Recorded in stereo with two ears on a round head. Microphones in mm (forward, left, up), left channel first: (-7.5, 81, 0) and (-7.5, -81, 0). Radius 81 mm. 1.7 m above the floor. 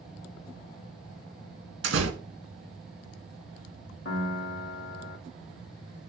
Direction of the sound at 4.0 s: 65° left (ahead or behind).